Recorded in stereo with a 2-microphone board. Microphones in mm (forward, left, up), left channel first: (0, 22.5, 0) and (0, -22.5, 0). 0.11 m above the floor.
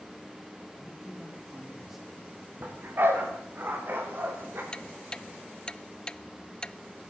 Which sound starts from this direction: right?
A dog barking, at 2.6 s.